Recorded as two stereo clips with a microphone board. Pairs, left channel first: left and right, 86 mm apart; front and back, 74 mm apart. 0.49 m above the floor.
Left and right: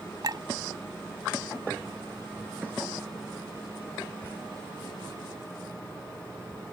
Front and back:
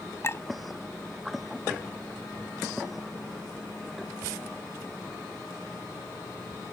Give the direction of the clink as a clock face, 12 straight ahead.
2 o'clock.